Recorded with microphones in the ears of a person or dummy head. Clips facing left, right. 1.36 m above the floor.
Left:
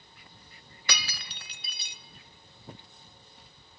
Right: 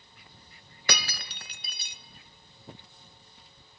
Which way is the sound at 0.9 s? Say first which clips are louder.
Right 5 dB; 45° right (ahead or behind).